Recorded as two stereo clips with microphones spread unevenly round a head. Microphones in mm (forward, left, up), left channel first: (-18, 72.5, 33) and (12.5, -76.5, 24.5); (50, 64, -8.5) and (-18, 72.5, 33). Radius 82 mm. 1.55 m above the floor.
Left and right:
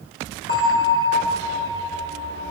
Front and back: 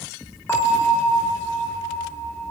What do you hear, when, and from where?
0.5 s a bell: 75° left, 1.7 m